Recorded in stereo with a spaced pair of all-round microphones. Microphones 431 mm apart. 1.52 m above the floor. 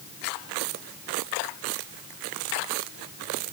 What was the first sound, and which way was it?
Only background noise.